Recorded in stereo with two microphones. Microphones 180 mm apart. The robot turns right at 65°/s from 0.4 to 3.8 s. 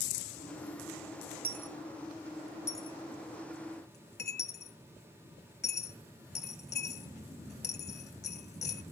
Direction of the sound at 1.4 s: 55° right (ahead or behind).